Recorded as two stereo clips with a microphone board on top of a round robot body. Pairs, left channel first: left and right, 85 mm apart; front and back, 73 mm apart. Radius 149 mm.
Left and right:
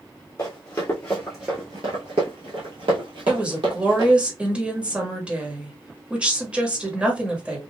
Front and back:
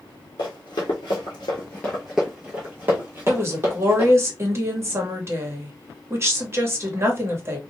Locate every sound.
0.4 s running footsteps: 30° left, 1.0 m; by 4.1 s 125° right, 1.6 m
3.3 s a woman speaking: 160° right, 1.4 m